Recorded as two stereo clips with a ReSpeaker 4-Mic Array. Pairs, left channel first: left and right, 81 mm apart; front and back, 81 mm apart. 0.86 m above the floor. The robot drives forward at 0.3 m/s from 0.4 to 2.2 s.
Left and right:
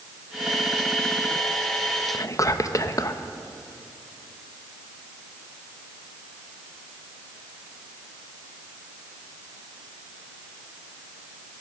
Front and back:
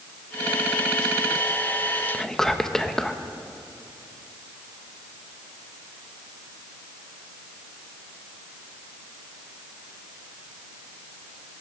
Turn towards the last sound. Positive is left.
turn(degrees=80)